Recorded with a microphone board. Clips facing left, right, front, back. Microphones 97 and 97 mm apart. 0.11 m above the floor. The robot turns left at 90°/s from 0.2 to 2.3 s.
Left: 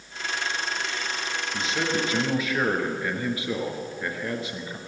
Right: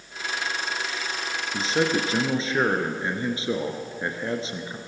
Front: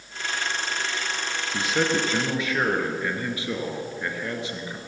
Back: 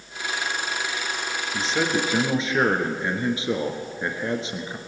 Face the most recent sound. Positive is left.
turn(degrees=-130)